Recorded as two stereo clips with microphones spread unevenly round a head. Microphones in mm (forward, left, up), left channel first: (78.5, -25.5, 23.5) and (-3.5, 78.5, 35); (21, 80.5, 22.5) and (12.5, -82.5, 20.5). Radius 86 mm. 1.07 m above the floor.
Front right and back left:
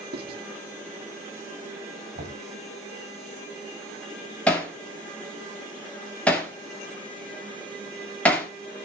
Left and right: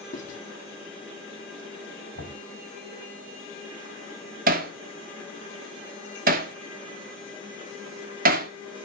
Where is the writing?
135° left, 2.5 m.